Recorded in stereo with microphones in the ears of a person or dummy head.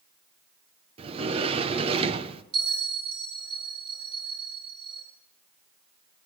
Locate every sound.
1.0 s a sliding door: 35° right (ahead or behind), 0.9 m
2.5 s a bell: 30° right (ahead or behind), 6 m